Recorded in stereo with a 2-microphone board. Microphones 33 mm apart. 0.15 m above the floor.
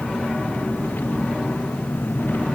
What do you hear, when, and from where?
0.0 s an engine running: 85° left